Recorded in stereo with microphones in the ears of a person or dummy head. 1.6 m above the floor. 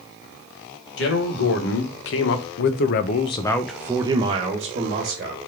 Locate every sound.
1.0 s a man speaking: 70° left (ahead or behind), 1.5 m; by 5.4 s 40° right (ahead or behind), 1.2 m